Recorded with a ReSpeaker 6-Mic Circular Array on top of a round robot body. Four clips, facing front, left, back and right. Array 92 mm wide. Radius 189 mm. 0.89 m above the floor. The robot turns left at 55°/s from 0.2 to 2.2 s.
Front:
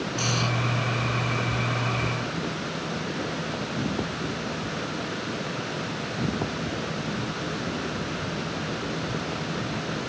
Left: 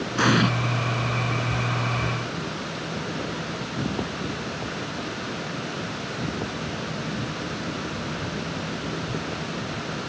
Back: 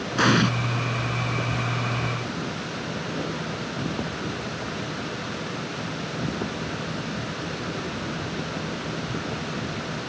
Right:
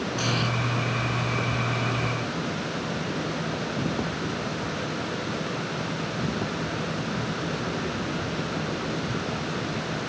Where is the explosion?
145° left; by 0.5 s 130° left.